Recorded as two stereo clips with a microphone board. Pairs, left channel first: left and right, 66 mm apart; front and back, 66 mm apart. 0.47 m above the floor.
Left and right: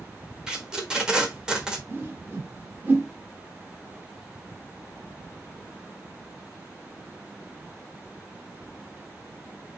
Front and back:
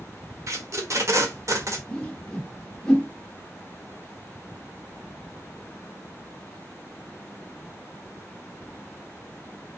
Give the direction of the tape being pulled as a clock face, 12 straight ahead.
5 o'clock.